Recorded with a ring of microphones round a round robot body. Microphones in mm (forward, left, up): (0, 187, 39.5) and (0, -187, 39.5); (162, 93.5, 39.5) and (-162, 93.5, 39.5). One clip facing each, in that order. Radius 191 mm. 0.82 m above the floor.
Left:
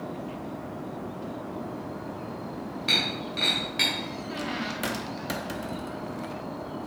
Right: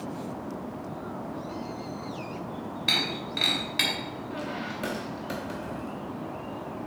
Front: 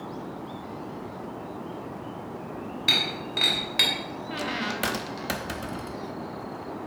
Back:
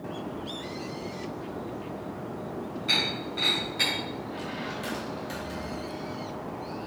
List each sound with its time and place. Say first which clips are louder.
2.9 s breaking glass: left 1 dB, even; 15° right, 2.5 m
4.3 s a squeak: left 2 dB, front 3 dB; 20° left, 0.7 m